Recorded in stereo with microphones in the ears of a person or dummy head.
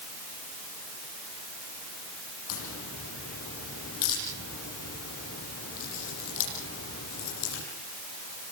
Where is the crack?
80° left, 8.5 m.